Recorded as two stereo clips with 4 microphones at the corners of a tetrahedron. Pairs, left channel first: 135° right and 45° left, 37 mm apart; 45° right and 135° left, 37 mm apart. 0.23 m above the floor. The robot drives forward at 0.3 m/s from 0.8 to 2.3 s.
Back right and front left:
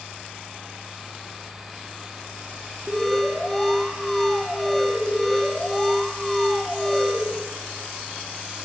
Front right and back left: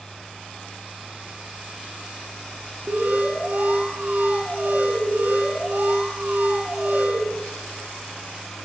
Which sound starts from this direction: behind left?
An alarm, at 2.9 s.